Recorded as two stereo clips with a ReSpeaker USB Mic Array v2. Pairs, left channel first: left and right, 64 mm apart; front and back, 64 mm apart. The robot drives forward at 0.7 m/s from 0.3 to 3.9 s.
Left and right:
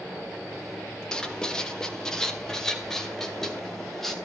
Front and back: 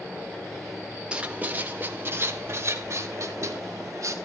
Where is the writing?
145° left, 1.5 m; by 4.1 s 170° left, 3 m.